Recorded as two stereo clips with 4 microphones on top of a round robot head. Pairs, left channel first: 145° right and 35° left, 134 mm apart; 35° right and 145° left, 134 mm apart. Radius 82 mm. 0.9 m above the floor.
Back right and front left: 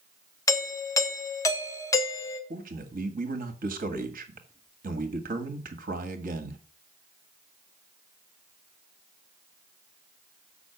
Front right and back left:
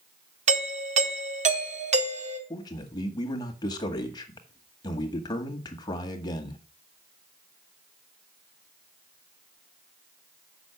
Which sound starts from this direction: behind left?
A doorbell, at 0.5 s.